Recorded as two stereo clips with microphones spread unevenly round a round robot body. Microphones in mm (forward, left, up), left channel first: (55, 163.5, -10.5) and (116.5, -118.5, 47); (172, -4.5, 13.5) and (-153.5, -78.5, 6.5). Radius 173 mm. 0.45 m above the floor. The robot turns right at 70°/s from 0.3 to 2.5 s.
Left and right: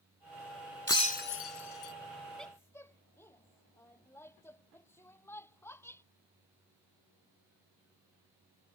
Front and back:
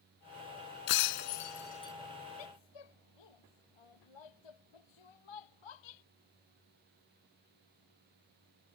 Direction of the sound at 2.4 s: 10° left.